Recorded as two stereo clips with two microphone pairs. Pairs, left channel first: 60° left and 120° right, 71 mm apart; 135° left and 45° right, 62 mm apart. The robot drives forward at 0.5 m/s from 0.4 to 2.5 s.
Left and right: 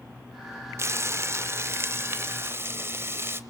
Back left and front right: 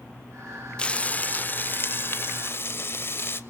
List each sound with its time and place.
0.8 s frying: 155° right, 0.5 m; by 3.4 s 175° right, 1.3 m